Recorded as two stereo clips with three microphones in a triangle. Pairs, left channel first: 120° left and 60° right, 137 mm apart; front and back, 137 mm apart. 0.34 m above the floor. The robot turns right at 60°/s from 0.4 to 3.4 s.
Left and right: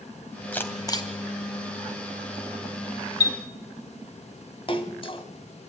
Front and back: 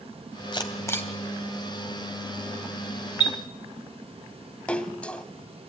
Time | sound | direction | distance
0.5 | a camera shutter | 45° left | 2.5 m
3.2 | a chime | 175° left | 1.3 m
4.7 | a splash | 80° left | 1.7 m